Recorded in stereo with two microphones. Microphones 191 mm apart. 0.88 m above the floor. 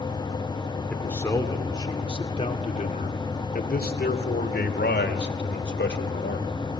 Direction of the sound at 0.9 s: 10° left (ahead or behind).